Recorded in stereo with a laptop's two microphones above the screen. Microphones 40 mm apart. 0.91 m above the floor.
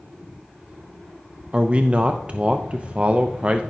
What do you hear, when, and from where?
1.5 s a man speaking: 25° right (ahead or behind), 0.5 m